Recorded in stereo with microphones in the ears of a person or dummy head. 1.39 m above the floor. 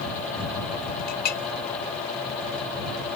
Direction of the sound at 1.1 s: 50° left (ahead or behind).